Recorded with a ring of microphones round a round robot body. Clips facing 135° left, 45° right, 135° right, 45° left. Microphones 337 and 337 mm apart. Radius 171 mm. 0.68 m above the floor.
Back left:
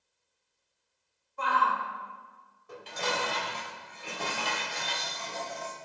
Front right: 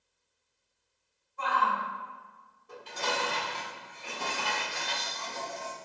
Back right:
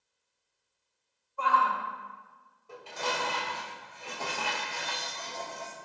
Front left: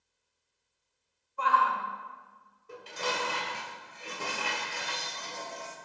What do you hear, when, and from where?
1.4 s a shout: 105° left, 3.5 m
2.7 s dishes clattering: 115° left, 2.5 m